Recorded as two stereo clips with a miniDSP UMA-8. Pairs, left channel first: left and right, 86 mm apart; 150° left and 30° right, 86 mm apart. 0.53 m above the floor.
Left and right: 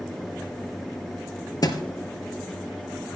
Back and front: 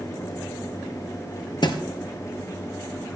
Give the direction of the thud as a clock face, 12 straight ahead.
8 o'clock.